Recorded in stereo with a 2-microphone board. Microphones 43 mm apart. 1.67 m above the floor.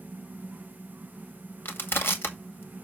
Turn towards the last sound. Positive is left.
turn(degrees=60)  # may be behind; listen again after turning